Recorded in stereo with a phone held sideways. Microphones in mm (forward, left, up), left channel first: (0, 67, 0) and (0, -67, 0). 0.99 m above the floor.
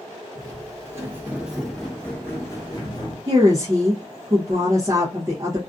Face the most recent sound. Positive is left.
turn(degrees=-25)  # may be behind; listen again after turning